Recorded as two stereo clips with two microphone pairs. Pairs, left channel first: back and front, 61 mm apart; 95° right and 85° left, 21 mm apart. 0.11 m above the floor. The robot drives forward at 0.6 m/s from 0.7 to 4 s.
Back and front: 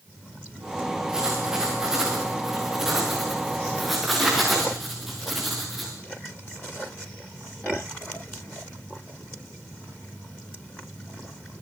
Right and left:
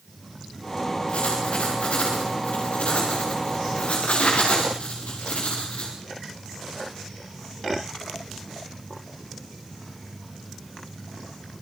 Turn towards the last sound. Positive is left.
turn(degrees=-90)